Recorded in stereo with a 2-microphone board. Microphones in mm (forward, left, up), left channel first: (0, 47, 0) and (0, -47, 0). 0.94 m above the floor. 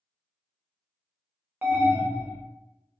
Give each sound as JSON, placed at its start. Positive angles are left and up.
{"t": 1.6, "sound": "an alarm", "side_deg": -20, "distance_m": 0.8}